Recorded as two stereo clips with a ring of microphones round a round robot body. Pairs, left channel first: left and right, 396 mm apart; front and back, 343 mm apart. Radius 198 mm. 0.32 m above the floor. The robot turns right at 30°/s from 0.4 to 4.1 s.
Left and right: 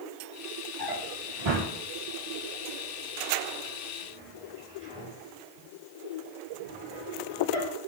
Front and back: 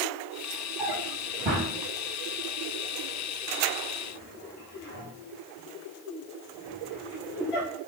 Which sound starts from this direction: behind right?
A drawer, at 0.8 s.